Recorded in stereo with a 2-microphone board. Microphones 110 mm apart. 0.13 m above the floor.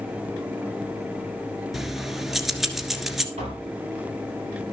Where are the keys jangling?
Centre (ahead or behind), 1.4 m.